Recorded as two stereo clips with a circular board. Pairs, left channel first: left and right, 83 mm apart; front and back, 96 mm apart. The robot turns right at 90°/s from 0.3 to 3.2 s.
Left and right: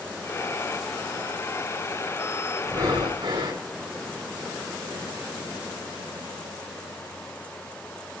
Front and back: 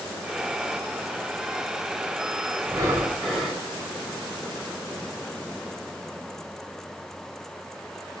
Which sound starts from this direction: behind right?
Breathing, at 2.6 s.